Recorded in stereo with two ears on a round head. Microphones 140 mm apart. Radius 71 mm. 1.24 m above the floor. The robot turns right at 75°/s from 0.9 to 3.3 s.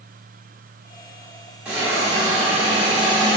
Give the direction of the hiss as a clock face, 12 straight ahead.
6 o'clock.